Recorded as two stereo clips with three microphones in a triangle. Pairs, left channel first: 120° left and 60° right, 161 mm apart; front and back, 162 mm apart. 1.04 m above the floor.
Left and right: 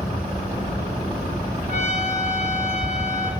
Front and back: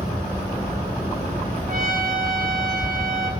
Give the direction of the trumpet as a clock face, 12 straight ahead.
7 o'clock.